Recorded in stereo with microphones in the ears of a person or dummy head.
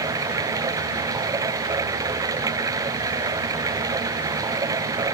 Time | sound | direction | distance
0.0 | running water | 20° right (ahead or behind) | ?